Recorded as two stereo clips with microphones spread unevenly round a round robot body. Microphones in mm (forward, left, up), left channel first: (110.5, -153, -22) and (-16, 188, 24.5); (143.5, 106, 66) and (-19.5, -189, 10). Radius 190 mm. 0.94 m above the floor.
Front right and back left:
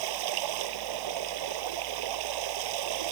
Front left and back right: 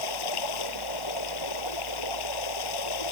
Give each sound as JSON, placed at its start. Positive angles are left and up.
{"t": 0.0, "sound": "running water", "azimuth_deg": 90}